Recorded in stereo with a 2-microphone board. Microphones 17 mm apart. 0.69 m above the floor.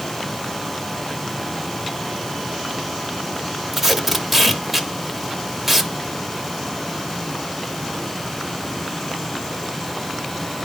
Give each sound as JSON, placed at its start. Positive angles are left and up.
{"t": 3.7, "sound": "tape being pulled", "side_deg": -20, "distance_m": 1.4}